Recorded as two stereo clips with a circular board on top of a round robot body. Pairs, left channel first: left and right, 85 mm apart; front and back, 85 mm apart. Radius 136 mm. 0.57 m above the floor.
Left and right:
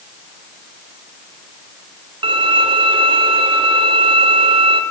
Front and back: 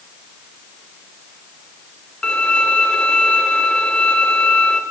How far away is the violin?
About 1.6 m.